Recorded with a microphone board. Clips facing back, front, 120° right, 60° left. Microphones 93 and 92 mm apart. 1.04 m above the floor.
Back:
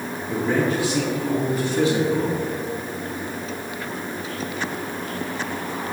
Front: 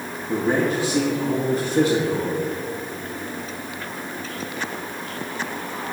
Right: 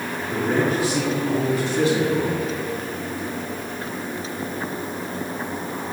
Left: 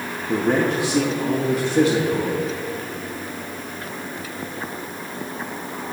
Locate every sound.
0.3 s a man speaking: 65° left, 1.4 m; by 2.4 s 40° left, 2.5 m